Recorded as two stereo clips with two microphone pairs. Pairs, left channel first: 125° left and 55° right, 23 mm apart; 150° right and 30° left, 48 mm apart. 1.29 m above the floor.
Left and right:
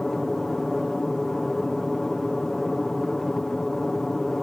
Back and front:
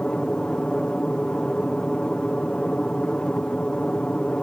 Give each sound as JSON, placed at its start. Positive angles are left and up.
{"t": 0.0, "sound": "an aircraft", "azimuth_deg": 175}